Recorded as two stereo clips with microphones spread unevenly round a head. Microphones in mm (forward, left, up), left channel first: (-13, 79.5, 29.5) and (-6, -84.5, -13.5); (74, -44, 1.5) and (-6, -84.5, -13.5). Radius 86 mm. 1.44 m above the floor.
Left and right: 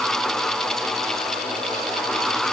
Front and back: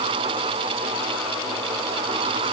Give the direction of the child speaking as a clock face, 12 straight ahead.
I don't hear a child speaking.